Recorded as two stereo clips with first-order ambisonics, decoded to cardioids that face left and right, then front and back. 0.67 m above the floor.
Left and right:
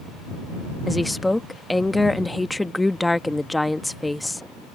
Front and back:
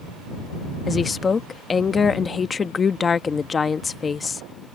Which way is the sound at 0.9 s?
20° left.